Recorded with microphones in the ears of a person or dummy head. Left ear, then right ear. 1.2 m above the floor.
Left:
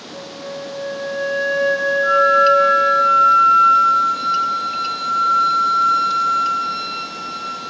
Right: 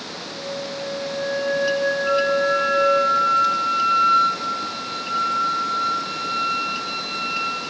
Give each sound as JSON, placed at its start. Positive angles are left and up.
{"t": 0.1, "sound": "a flute", "side_deg": 80, "distance_m": 3.0}
{"t": 2.0, "sound": "a flute", "side_deg": 45, "distance_m": 3.5}